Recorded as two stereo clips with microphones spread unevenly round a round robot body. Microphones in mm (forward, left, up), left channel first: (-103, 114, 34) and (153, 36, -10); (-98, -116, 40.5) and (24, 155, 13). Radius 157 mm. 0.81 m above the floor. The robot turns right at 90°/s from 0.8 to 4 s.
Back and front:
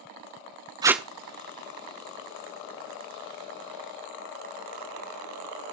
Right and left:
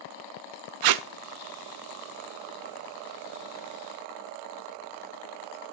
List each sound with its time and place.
0.8 s tape being pulled: 60° left, 0.6 m; by 1.1 s 80° left, 0.6 m